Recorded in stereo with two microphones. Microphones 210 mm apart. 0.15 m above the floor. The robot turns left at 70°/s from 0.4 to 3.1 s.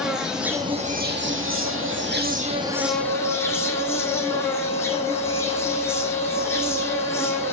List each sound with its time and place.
0.0 s an insect: 5° right, 1.1 m; by 7.5 s 170° left, 1.1 m
2.7 s a flute: 25° left (ahead or behind), 1.2 m; by 7.5 s 30° left (ahead or behind), 1.2 m